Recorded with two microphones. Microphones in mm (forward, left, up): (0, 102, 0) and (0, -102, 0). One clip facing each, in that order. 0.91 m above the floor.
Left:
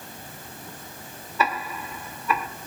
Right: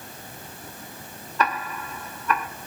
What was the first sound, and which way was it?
Ticking, 5° left (ahead or behind).